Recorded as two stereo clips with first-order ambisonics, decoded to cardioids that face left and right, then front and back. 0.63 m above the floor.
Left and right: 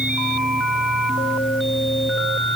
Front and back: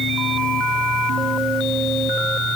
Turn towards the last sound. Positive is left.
No sound to turn to.